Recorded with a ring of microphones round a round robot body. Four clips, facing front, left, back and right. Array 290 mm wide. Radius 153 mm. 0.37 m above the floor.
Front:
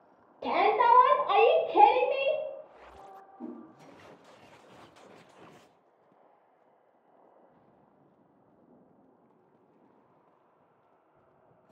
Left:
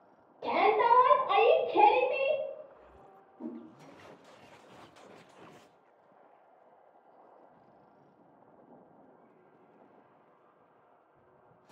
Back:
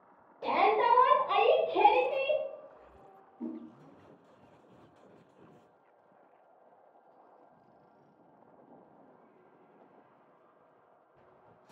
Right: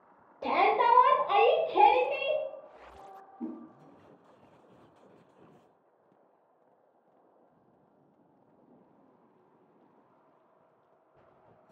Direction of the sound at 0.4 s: 50° right.